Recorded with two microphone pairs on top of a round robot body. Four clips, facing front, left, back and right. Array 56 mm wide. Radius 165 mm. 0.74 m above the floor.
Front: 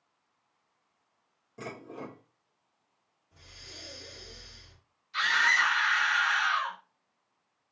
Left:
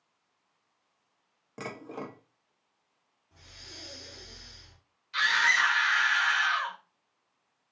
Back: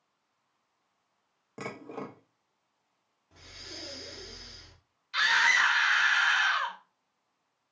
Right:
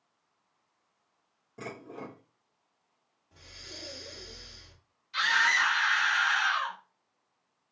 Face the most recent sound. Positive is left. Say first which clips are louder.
# left 1 dB, back 1 dB
turn(degrees=160)